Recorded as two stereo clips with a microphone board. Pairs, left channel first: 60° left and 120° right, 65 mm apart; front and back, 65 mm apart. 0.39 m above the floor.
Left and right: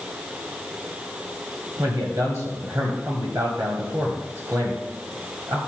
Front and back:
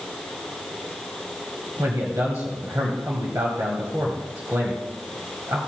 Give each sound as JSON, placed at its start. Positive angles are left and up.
{"t": 1.8, "sound": "a man speaking", "azimuth_deg": -145, "distance_m": 1.9}